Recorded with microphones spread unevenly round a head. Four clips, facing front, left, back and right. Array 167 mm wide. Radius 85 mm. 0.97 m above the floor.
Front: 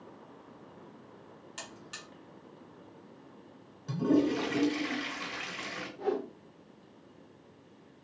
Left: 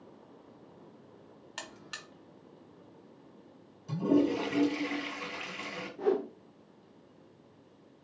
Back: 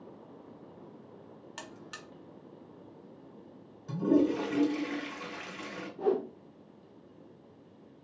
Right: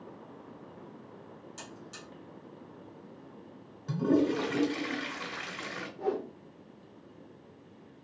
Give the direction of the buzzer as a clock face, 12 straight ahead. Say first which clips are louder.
Left 4 dB, back 1 dB; 9 o'clock.